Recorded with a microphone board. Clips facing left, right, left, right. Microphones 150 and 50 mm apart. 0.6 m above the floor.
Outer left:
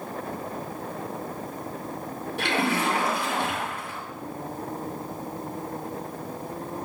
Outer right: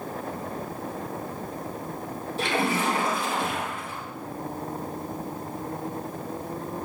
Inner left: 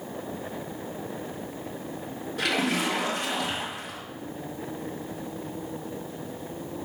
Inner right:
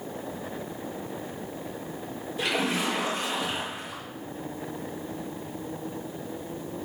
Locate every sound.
2.4 s a splash: 65° left (ahead or behind), 6.5 m